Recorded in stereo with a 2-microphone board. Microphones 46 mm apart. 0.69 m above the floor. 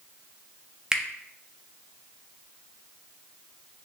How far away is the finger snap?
About 0.5 m.